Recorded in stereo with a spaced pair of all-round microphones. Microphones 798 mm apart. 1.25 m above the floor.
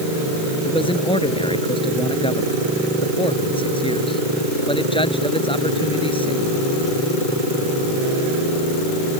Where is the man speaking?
5° left (ahead or behind).